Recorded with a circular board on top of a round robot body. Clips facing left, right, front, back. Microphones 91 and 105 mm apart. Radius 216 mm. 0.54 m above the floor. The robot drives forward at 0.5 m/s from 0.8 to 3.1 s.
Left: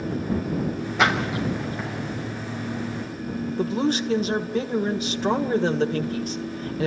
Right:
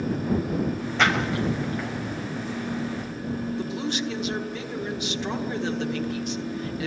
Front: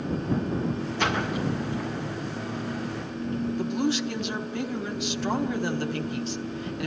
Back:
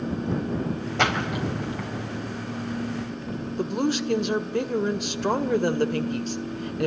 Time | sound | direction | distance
1.0 | a splash | 170° left | 5.5 m
3.6 | a woman speaking | 135° left | 2.5 m